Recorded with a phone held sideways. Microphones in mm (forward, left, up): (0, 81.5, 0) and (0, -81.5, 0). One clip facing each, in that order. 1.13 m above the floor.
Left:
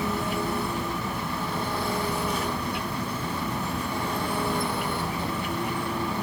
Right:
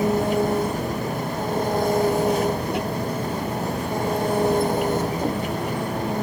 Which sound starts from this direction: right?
An engine running, at 0.0 s.